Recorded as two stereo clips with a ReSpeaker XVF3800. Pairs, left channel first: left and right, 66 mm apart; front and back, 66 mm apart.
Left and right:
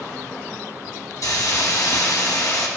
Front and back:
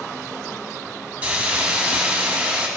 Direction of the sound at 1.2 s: 115° left.